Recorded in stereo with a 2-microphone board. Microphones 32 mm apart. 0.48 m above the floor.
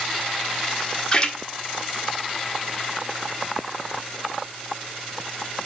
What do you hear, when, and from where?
1.1 s a splash: 25° left (ahead or behind), 1.5 m